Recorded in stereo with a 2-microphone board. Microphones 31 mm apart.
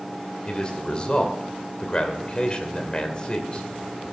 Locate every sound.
0.5 s a man speaking: 30° left (ahead or behind), 2.5 m